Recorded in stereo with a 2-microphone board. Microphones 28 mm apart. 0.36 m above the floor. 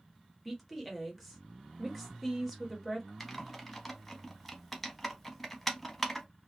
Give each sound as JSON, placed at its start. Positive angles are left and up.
{"t": 0.5, "sound": "a woman speaking", "side_deg": 0, "distance_m": 0.9}
{"t": 3.2, "sound": "typing on a keyboard", "side_deg": 10, "distance_m": 0.7}